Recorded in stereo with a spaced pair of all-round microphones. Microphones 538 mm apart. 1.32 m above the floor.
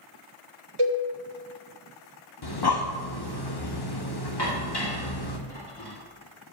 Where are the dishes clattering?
45° left (ahead or behind), 2 m.